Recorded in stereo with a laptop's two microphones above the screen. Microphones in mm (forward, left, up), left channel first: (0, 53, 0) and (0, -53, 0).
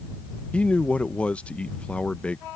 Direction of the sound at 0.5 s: 10° left (ahead or behind).